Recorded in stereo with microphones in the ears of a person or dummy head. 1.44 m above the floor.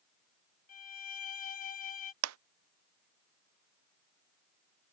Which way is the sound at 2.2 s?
85° right.